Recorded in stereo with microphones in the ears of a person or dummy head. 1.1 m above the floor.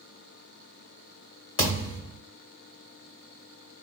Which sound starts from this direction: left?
A thud, at 1.6 s.